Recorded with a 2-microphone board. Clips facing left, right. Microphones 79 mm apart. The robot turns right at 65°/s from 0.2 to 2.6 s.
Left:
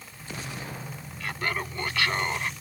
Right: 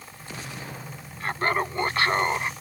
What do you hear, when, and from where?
1.2 s laughter: 115° right; by 2.5 s 30° right